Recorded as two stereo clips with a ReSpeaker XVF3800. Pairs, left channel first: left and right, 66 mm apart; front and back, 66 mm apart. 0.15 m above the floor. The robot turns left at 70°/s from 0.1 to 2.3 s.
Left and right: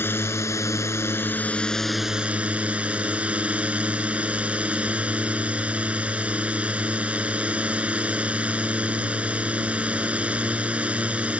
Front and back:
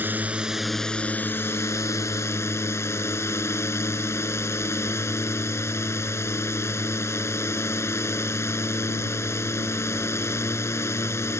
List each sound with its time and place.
0.0 s a drone: 130° left; by 11.4 s 25° right